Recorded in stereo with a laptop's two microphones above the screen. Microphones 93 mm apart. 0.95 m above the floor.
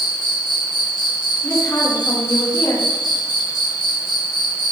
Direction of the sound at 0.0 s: 55° left (ahead or behind).